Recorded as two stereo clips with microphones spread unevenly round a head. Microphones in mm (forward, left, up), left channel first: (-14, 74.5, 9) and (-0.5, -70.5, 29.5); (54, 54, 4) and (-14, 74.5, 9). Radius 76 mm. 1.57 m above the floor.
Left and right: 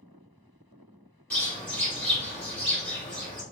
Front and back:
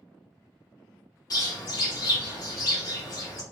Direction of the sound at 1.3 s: 15° left.